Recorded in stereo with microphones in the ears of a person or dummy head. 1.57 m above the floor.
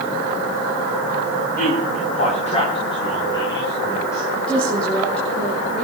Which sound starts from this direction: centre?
A woman speaking, at 4.4 s.